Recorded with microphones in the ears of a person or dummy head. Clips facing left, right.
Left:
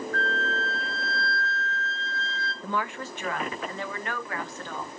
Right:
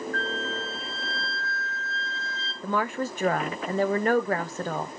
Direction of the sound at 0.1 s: 45° left (ahead or behind).